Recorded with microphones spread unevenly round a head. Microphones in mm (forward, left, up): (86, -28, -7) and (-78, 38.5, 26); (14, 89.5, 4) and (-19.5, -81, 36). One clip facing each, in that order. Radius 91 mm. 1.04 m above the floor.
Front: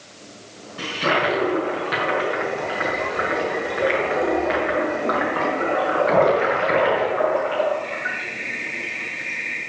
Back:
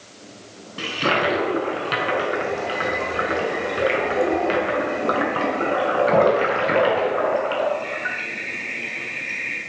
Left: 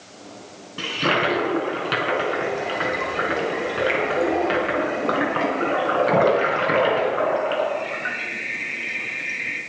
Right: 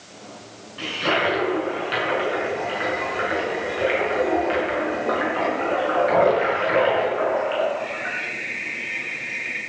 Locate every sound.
0.8 s a toilet flushing: 110° left, 5.5 m